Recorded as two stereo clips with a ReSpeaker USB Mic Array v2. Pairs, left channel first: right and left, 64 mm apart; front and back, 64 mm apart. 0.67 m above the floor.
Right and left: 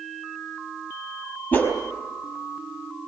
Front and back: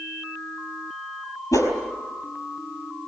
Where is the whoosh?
30° right, 4.5 m.